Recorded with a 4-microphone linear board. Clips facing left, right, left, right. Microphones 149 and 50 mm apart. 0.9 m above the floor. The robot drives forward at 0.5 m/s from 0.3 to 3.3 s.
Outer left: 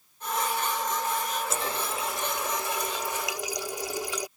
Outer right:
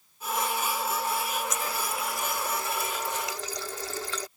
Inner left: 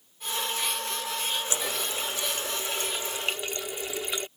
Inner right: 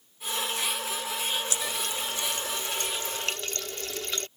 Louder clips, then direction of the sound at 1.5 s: Outer left 1 dB, inner left 1 dB; 35° left (ahead or behind).